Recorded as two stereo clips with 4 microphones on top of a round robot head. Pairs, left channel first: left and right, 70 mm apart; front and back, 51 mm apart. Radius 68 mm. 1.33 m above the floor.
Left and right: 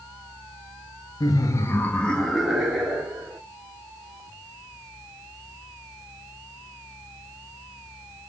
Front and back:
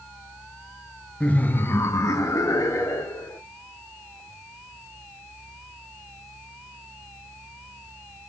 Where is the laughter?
65° left, 0.6 m; by 3.4 s 15° right, 1.2 m.